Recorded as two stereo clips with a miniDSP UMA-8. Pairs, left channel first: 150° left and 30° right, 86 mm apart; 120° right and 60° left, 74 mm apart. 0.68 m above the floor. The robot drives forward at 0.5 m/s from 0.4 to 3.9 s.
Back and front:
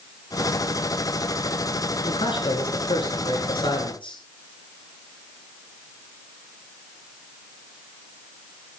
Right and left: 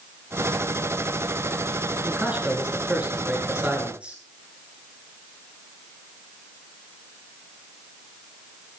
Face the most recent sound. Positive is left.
turn(degrees=135)